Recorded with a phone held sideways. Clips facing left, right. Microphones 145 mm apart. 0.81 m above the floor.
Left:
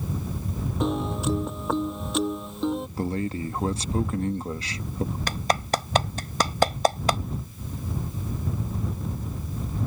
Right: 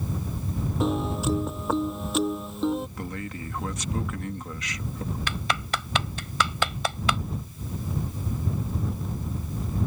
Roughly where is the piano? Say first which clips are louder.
Even; centre.